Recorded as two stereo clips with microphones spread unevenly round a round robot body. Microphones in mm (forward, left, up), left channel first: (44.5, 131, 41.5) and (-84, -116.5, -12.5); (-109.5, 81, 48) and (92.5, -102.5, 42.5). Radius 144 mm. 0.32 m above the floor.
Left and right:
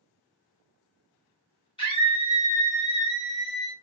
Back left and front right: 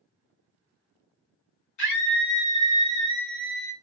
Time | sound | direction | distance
1.8 | a scream | 140° left | 3.5 m